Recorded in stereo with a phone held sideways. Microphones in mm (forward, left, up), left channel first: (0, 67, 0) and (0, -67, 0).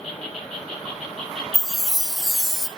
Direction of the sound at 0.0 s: 5° left (ahead or behind).